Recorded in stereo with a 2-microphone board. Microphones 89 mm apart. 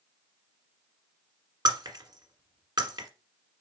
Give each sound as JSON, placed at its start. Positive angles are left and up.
{"t": 1.6, "sound": "breaking glass", "side_deg": -55, "distance_m": 1.4}